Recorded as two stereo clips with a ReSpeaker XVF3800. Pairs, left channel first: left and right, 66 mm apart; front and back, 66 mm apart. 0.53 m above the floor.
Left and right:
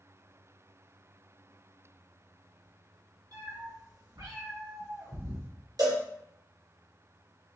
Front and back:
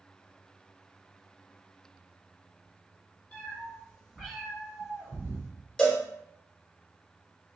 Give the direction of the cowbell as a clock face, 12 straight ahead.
3 o'clock.